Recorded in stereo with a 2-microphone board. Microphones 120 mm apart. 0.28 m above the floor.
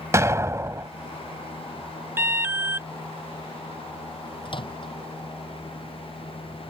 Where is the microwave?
45° left (ahead or behind).